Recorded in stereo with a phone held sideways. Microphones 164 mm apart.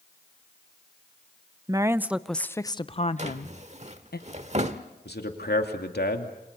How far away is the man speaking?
About 2.5 m.